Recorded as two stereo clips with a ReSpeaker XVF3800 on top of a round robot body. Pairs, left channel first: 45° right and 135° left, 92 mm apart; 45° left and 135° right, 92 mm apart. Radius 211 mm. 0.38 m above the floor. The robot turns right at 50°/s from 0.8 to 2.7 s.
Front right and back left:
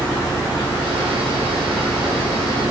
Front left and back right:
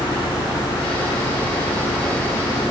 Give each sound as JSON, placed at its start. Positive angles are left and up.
{"t": 0.0, "sound": "an engine running", "azimuth_deg": -165, "distance_m": 6.5}